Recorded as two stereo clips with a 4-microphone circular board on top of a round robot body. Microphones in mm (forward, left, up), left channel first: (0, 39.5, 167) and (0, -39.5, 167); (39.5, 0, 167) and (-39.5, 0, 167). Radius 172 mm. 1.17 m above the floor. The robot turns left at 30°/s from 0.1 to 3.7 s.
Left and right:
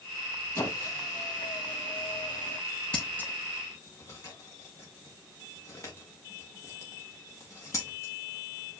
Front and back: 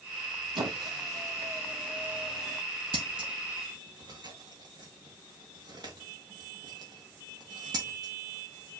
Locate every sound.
0.6 s a squeak: 150° left, 1.8 m; by 2.6 s 90° left, 1.8 m
2.9 s scissors: 165° left, 0.7 m; by 8.8 s 140° left, 0.7 m